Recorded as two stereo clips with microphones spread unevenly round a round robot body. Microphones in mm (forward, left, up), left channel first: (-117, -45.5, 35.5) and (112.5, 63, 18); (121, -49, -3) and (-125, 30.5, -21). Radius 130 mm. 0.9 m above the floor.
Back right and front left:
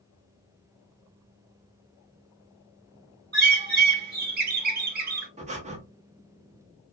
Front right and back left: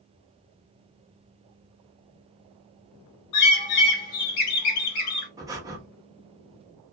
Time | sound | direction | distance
3.3 | a bird | 15° right | 1.0 m
5.4 | breathing | 85° left | 0.6 m